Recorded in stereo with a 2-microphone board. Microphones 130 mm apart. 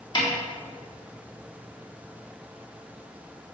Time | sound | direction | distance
0.1 | a snare drum | 35° left (ahead or behind) | 4.5 m